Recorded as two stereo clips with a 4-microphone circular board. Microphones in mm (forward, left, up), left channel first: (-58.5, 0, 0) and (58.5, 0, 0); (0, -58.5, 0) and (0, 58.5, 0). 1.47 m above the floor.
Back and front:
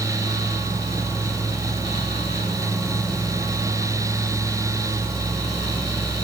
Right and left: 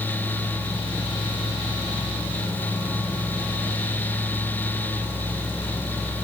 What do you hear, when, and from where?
Only background noise.